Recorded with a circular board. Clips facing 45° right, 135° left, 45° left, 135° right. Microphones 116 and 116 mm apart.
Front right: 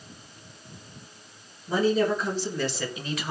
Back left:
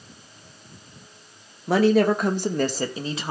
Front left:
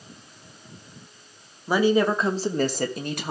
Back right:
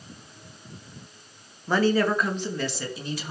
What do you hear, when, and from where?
1.7 s a woman speaking: 125° left, 1.8 m; by 3.3 s 70° left, 1.9 m